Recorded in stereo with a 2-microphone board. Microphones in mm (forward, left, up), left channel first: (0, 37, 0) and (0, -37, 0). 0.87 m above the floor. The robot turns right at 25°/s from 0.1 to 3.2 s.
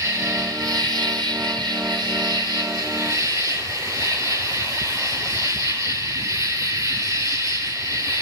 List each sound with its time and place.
0.0 s an insect: 130° right, 4.5 m; by 8.2 s 50° right, 4.5 m